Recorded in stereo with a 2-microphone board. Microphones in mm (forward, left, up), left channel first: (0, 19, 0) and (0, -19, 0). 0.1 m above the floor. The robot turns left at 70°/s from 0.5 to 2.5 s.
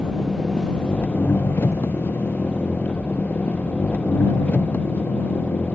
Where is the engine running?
Straight behind; by 5.8 s 40° left.